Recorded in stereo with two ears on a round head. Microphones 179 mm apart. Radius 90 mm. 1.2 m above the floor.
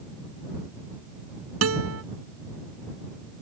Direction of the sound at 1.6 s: 80° right.